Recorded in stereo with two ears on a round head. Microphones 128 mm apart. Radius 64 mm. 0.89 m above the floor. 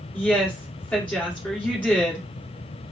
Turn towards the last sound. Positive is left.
turn(degrees=10)  # may be behind; listen again after turning